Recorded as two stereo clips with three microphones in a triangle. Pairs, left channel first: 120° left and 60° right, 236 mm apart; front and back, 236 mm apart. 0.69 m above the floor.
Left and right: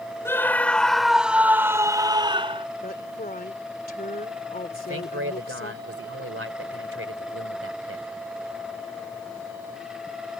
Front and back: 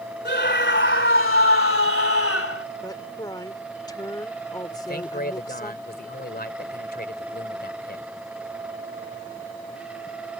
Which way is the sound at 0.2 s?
40° left.